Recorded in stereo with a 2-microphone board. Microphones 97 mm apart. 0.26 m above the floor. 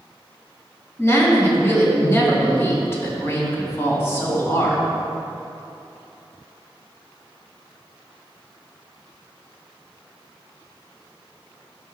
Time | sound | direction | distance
1.0 | a woman speaking | 25° left (ahead or behind) | 2 m